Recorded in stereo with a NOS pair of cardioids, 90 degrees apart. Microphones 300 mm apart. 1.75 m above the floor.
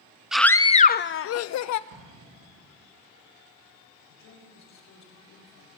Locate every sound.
0.3 s a scream: straight ahead, 0.6 m; by 1.8 s 70° left, 0.8 m
1.9 s an explosion: 65° right, 3 m
4.1 s a woman speaking: 60° left, 4.5 m